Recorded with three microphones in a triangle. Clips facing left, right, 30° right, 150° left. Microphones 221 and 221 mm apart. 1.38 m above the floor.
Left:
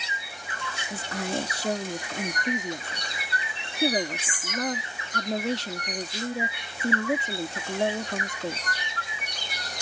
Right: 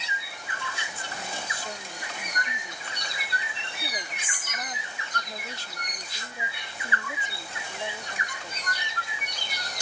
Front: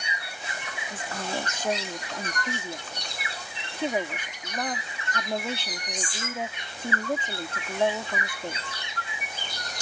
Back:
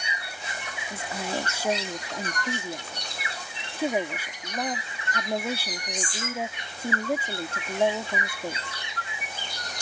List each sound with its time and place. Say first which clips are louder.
0.9 s a woman speaking: left 13 dB, back 1 dB; 70° left